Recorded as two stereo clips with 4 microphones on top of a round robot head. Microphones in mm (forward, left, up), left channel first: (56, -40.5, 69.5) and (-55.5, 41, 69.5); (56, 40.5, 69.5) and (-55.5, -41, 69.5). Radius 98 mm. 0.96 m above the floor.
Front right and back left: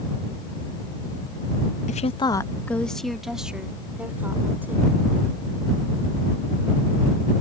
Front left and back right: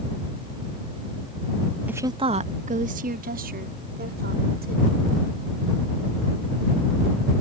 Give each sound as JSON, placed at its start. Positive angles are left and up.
{"t": 1.9, "sound": "a woman speaking", "azimuth_deg": -65}